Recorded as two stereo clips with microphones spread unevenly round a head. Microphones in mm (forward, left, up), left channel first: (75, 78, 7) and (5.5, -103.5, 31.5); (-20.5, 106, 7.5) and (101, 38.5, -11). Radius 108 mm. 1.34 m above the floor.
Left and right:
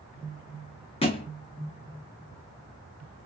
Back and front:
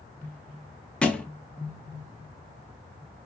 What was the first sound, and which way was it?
A thud, 105° left.